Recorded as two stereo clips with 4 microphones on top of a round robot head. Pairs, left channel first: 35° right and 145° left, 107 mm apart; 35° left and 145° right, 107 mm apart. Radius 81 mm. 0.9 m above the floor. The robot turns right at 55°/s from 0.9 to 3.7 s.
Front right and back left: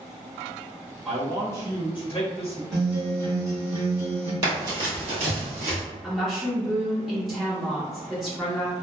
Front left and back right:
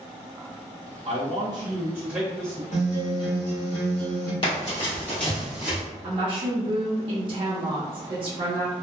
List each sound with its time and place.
1.1 s a man speaking: 130° right, 0.8 m; by 2.6 s 40° right, 0.8 m
2.7 s a guitar: 50° left, 1.4 m; by 4.3 s 105° left, 1.4 m
4.4 s running footsteps: 85° left, 1.6 m; by 5.8 s 140° left, 1.5 m
6.0 s a woman speaking: 125° right, 0.7 m